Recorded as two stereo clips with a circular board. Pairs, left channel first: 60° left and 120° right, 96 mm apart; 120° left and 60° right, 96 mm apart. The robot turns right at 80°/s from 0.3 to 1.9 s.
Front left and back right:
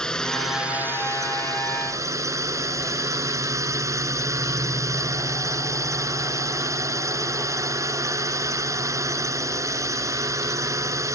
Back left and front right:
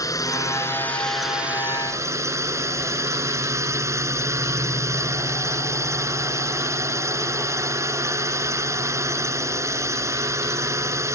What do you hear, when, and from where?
0.0 s a drone: 140° left; by 11.2 s 95° right